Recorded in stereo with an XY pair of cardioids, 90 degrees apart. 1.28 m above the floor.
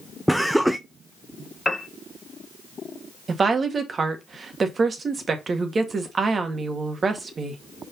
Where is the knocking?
No knocking in this recording.